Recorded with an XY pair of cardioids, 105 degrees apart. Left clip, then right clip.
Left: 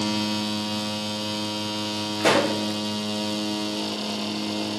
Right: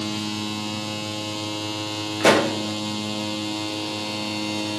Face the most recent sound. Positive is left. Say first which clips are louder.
# right 3 dB
turn(degrees=-30)